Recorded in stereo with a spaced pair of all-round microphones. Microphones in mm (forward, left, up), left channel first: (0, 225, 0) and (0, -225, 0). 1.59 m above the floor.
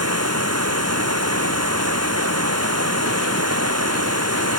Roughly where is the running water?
Right.